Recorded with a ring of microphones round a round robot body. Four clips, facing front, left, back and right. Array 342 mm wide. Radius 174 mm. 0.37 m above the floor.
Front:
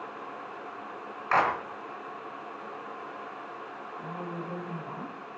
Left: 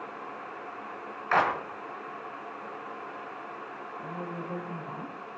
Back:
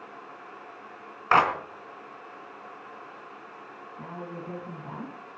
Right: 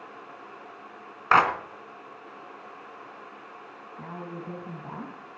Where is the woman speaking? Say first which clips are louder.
Even, front 1 dB; 110° right, 4 m.